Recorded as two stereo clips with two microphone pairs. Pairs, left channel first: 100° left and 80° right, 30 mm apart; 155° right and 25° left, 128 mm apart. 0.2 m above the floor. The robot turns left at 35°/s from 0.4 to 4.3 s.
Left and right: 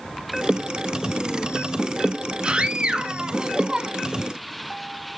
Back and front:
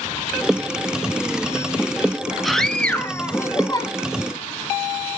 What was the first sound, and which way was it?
A scream, 70° right.